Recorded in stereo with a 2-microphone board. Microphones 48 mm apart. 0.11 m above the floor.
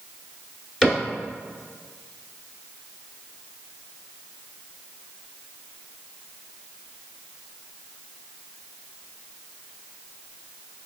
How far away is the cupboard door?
About 1.4 m.